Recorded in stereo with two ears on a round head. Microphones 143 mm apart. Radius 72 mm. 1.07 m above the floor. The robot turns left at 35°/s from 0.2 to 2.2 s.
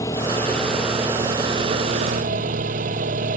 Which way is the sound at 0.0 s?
20° left.